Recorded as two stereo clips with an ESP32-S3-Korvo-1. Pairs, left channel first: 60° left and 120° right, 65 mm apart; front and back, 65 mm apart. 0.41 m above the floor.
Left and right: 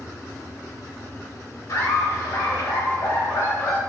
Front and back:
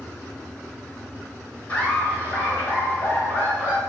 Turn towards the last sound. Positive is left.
turn(degrees=50)